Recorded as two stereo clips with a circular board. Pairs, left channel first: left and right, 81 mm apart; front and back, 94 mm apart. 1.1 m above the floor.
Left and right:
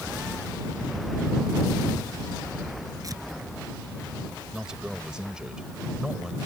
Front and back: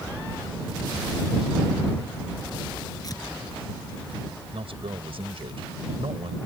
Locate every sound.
3.0 s tearing paper: 45° right
4.5 s a man speaking: 170° right